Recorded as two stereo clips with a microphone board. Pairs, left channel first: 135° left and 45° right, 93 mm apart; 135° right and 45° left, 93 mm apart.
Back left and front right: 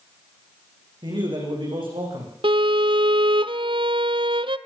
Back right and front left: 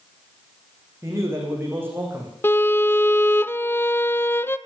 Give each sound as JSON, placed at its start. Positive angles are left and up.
{"t": 1.0, "sound": "a man speaking", "azimuth_deg": -15, "distance_m": 9.5}
{"t": 2.4, "sound": "a violin", "azimuth_deg": -70, "distance_m": 0.6}